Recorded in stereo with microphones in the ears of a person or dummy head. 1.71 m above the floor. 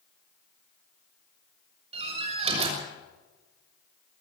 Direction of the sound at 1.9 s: 35° right (ahead or behind).